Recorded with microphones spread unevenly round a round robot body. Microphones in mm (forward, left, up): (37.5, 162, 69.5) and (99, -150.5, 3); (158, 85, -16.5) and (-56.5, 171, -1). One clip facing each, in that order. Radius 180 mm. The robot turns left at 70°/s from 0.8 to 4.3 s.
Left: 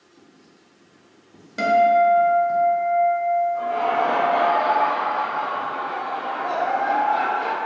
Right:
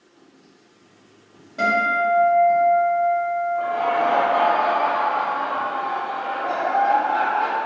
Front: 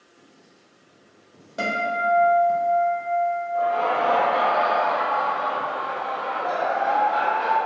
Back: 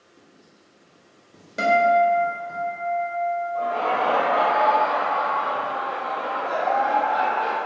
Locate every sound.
0.2 s writing: straight behind, 1.2 m; by 2.6 s 55° left, 1.2 m
1.6 s a guitar: 110° left, 0.9 m; by 4.5 s 80° right, 0.9 m
3.5 s laughter: 55° left, 0.9 m; by 7.6 s 5° left, 0.9 m